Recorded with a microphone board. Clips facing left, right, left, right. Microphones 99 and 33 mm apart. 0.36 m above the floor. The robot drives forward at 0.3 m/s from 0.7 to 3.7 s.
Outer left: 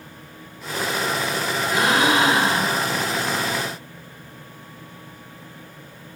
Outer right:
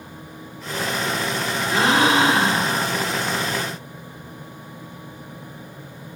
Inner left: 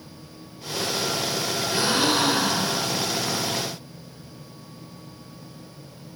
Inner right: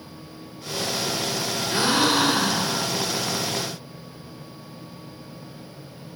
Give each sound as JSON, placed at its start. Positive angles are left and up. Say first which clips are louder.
{"t": 1.7, "sound": "a gasp", "louder": "outer right 2 dB, inner right 2 dB", "side_deg": -30, "distance_m": 4.0}